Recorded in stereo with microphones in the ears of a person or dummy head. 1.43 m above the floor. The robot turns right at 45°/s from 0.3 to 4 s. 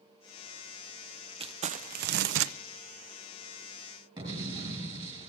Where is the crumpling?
150° right, 0.6 m; by 2.5 s 100° right, 0.6 m.